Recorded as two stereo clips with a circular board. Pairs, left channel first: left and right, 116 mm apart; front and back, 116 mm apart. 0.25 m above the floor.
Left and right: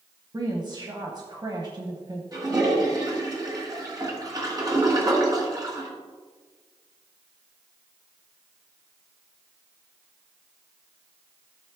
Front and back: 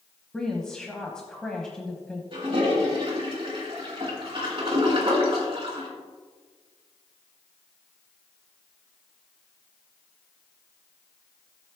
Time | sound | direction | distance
0.3 | a woman speaking | 80° right | 1.2 m
2.3 | a toilet flushing | 140° right | 2.5 m